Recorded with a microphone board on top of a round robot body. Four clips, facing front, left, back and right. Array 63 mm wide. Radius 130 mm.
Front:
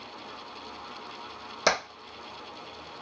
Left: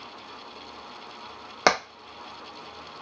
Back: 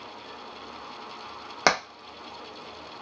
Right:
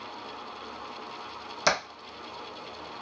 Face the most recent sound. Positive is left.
turn(degrees=130)